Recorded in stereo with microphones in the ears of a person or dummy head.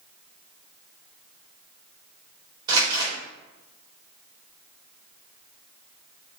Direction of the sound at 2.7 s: 25° right (ahead or behind).